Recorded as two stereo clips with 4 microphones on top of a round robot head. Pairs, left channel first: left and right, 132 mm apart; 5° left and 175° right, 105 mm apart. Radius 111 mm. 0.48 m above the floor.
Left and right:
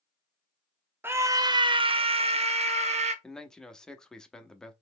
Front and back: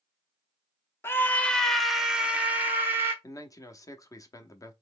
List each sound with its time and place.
1.0 s a scream: 35° right, 0.7 m; by 3.1 s 110° right, 1.3 m
3.2 s a man speaking: 10° left, 0.8 m